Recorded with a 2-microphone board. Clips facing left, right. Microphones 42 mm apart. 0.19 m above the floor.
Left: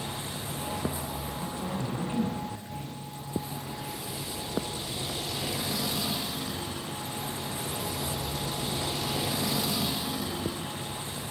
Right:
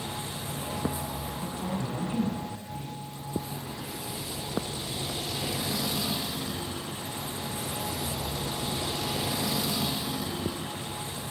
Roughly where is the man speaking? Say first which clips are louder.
Right 1 dB; left.